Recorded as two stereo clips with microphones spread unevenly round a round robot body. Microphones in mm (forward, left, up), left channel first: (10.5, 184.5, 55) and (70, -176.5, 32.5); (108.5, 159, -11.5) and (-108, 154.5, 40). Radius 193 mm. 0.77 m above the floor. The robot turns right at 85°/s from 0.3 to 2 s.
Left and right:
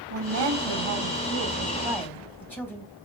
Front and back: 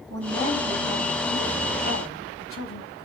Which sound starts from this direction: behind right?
A woman speaking, at 0.1 s.